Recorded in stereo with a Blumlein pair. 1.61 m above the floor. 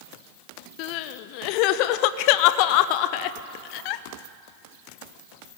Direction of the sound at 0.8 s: 45° left.